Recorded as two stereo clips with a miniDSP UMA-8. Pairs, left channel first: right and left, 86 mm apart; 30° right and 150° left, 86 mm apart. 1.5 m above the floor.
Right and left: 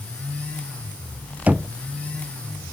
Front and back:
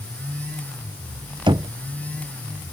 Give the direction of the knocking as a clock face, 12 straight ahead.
7 o'clock.